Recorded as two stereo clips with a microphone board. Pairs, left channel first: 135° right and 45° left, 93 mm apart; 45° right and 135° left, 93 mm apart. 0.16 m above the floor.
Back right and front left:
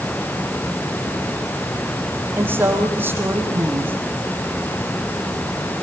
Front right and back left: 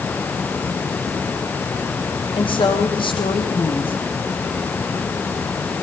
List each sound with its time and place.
2.3 s a woman speaking: 20° right, 5 m